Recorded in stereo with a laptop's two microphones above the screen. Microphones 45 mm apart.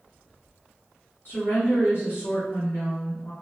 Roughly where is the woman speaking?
Left.